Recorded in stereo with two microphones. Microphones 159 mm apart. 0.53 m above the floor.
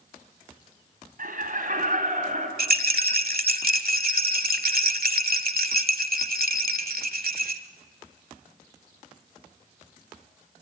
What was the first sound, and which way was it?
Laughter, 65° right (ahead or behind).